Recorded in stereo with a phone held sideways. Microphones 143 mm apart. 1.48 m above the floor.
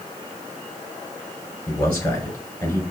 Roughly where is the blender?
No blender in this recording.